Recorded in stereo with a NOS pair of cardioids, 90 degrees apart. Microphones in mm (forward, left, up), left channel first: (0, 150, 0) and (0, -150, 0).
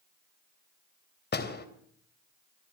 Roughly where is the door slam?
Ahead left.